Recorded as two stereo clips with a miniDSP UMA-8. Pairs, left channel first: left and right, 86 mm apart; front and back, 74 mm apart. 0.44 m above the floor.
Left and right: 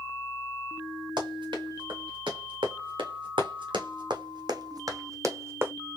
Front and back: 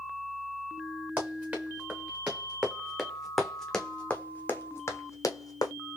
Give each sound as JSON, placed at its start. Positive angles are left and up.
{"t": 1.2, "sound": "running footsteps", "azimuth_deg": -110, "distance_m": 2.5}